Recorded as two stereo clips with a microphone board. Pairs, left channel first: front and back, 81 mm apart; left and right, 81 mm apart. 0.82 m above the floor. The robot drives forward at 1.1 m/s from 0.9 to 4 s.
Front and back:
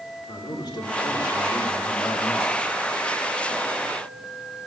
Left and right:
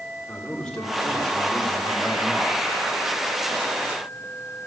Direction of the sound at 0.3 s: 10° left.